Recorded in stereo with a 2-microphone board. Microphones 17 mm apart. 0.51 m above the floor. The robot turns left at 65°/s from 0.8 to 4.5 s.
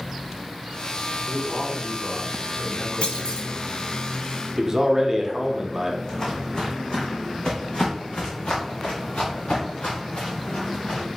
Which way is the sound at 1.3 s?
80° right.